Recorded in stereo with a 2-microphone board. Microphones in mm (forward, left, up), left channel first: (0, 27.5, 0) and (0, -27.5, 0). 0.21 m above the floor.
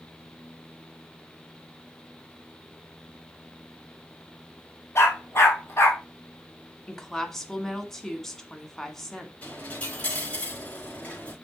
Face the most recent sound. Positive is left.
turn(degrees=25)  # may be behind; listen again after turning